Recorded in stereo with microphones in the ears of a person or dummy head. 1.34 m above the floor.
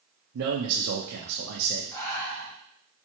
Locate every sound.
0.3 s a man speaking: 80° right, 0.5 m
1.9 s breathing: 15° left (ahead or behind), 0.9 m